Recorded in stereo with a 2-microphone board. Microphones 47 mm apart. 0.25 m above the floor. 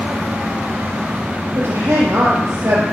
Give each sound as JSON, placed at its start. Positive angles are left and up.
{"t": 1.6, "sound": "a woman speaking", "side_deg": -75, "distance_m": 4.5}